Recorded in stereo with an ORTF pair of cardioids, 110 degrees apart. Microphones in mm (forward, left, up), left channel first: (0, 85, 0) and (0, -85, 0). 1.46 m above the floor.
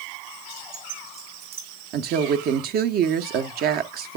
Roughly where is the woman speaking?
Ahead right.